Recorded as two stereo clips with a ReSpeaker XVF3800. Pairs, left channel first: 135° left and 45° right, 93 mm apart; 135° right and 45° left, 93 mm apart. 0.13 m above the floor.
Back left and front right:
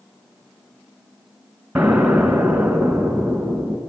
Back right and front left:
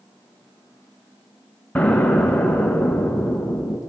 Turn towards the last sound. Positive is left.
turn(degrees=-85)